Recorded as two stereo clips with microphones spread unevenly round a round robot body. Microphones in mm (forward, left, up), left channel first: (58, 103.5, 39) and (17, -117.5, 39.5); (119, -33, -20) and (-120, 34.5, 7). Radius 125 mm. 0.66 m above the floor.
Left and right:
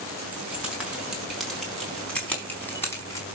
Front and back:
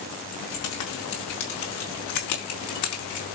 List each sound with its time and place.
0.3 s keys jangling: 15° right, 5.5 m; by 3.2 s 5° left, 4.5 m